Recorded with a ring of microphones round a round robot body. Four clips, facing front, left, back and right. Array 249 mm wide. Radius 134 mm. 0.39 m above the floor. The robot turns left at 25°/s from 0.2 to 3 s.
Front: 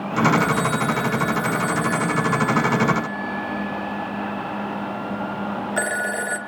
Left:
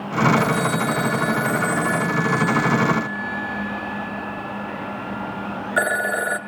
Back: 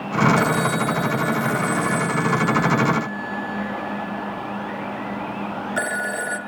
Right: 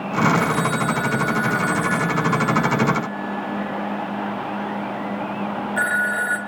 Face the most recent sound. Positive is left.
turn(degrees=80)